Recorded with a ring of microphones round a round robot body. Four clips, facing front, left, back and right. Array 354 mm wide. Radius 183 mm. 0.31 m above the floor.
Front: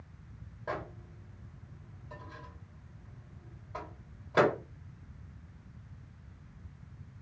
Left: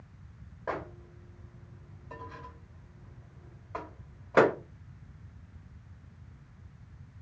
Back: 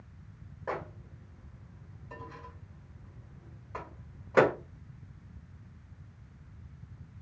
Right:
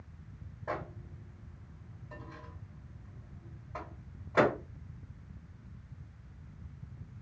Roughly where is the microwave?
Left.